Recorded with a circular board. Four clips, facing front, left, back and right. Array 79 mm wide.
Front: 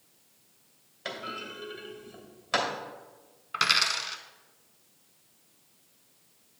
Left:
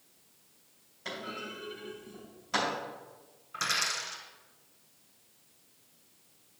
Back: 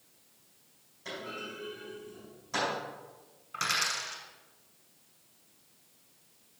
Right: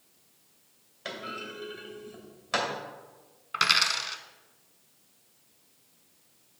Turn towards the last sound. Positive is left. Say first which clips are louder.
# right 6 dB, front 5 dB
turn(degrees=-55)